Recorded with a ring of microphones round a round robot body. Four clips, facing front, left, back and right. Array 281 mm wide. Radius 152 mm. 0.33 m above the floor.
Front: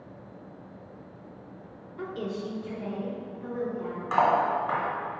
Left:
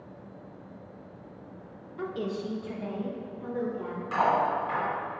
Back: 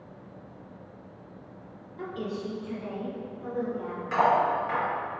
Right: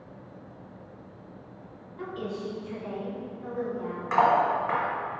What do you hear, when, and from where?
2.0 s a woman speaking: 60° left, 1.0 m; by 4.0 s 70° left, 3.5 m
4.1 s cutlery clinking: 45° right, 1.7 m